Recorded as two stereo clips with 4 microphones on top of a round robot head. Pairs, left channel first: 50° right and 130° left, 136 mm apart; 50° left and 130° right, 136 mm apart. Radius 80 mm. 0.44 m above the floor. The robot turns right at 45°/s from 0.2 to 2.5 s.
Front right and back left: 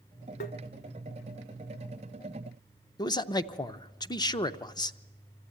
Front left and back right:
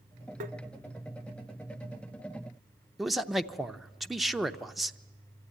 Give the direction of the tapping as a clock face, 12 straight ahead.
3 o'clock.